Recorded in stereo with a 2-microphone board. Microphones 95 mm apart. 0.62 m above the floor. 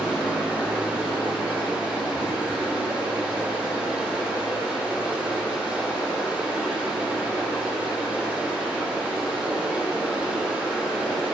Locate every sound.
0.0 s running water: 15° right (ahead or behind), 2 m